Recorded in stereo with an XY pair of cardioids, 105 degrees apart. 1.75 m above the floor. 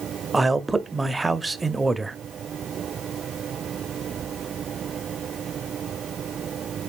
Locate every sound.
0.3 s a man speaking: 15° right, 0.6 m